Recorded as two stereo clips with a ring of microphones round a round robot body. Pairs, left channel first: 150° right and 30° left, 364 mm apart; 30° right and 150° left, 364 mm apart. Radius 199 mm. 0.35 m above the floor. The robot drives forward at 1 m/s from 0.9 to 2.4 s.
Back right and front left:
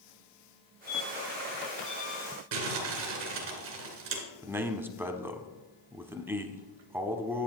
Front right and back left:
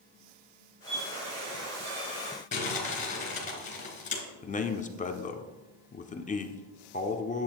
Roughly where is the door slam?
I don't hear a door slam.